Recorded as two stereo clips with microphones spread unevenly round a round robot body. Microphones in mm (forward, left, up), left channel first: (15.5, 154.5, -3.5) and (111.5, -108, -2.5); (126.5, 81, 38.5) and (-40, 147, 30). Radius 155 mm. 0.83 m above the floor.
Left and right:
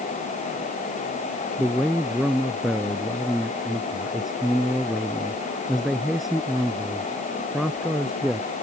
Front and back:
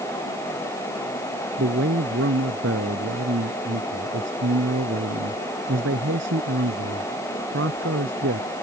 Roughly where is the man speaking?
Behind.